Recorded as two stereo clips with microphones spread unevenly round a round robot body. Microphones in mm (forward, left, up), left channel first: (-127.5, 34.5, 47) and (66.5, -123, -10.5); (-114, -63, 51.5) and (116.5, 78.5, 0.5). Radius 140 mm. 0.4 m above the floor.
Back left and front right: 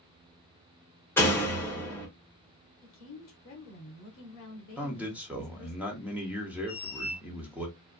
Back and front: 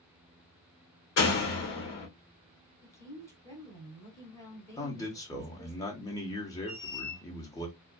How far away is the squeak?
About 1.2 m.